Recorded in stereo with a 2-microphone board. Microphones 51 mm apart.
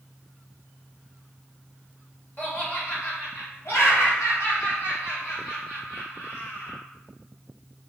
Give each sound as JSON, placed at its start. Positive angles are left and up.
{"t": 2.4, "sound": "laughter", "side_deg": 45, "distance_m": 1.4}